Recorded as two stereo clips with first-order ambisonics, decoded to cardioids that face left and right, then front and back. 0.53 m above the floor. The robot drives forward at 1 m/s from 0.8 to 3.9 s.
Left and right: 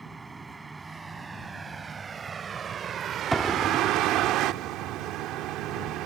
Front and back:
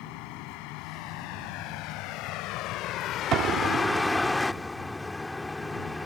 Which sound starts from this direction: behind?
An explosion, at 3.3 s.